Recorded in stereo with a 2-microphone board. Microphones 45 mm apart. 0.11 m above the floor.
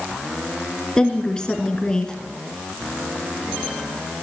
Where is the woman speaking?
15° left (ahead or behind), 1.6 m.